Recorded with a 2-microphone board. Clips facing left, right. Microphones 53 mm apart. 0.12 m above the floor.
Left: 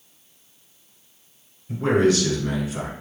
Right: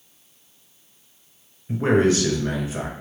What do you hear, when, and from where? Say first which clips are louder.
1.7 s a man speaking: even; 35° right (ahead or behind), 1.3 m